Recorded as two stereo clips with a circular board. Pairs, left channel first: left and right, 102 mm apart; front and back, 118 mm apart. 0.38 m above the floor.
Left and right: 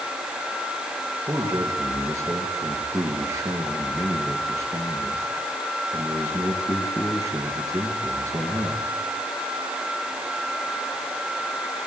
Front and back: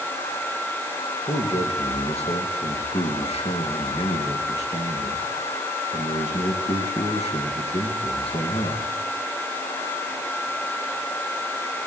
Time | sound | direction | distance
1.3 | a man speaking | 30° right | 6 m